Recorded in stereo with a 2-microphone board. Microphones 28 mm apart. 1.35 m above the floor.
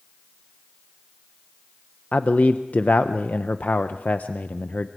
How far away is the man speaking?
About 0.6 m.